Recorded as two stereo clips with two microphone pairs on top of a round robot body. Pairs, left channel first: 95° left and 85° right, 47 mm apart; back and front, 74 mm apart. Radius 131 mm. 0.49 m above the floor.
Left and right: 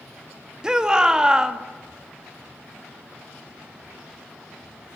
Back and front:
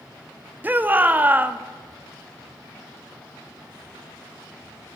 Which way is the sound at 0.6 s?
25° right.